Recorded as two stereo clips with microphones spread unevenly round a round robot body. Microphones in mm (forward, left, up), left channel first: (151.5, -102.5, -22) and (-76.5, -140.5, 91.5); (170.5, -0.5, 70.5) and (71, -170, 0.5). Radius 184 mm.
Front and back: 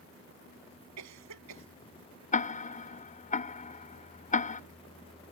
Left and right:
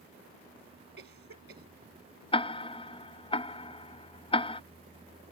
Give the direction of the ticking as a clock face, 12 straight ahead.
1 o'clock.